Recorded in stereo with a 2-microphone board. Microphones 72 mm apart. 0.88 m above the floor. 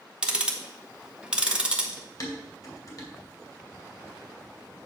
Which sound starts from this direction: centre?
Ticking, at 0.2 s.